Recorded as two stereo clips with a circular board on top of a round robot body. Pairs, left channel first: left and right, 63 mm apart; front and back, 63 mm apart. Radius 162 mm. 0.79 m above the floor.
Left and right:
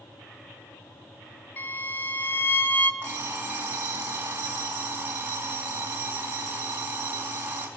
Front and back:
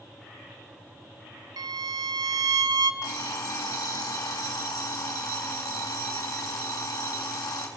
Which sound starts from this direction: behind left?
A violin, at 1.6 s.